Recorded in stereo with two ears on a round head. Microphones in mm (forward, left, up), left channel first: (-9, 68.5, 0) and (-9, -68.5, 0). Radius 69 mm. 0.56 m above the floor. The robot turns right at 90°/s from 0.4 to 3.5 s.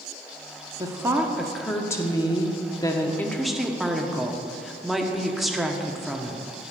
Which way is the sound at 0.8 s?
25° right (ahead or behind).